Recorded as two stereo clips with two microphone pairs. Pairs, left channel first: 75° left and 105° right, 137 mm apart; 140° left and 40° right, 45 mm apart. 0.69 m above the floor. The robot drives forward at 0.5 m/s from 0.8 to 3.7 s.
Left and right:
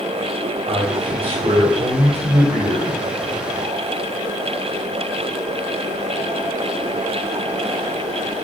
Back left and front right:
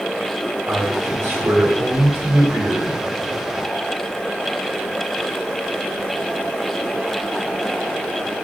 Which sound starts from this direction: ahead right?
A man speaking, at 0.7 s.